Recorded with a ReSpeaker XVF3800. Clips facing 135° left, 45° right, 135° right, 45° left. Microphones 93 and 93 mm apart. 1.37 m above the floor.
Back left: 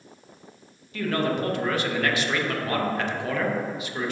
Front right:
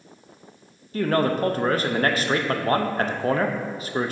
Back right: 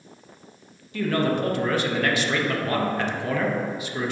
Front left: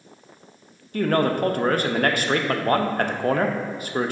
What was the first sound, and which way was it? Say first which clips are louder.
A man speaking: front right 4 dB, front left 2 dB; 5° left.